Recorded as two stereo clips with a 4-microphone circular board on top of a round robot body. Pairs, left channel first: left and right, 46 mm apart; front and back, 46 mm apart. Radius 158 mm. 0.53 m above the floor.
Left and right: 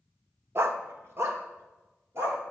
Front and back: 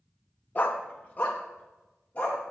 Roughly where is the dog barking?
Ahead right.